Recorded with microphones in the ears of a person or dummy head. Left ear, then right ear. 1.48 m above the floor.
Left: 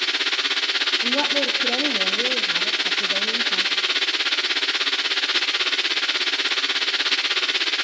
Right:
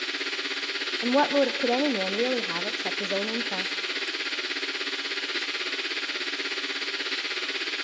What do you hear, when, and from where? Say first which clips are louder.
0.0 s a machine running: left 8 dB; 20° left (ahead or behind), 0.8 m
1.0 s a woman speaking: left 2 dB; 70° right (ahead or behind), 0.8 m